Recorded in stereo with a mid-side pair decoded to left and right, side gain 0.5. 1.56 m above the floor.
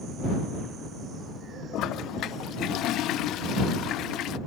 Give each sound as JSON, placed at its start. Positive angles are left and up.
{"t": 1.7, "sound": "a toilet flushing", "azimuth_deg": 70}